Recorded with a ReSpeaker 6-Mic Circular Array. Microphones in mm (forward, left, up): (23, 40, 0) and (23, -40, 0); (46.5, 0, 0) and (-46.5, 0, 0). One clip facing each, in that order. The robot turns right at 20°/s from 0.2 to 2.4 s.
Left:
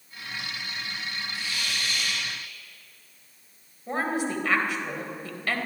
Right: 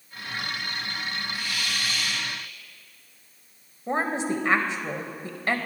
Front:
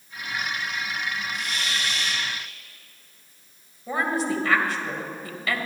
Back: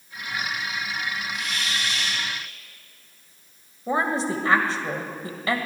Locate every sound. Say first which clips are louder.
1.3 s a hiss: right 2 dB, even; 30° left, 4 m; by 2.3 s 50° left, 4 m
3.9 s a woman speaking: right 2 dB, back 1 dB; 140° right, 1.6 m